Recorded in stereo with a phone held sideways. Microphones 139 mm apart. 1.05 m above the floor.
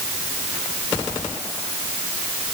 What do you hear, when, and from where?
Only background noise.